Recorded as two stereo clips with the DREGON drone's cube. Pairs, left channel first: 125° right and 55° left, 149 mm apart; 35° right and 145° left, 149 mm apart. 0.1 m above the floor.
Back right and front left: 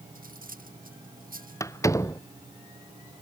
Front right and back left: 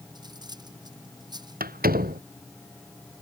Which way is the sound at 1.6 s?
165° left.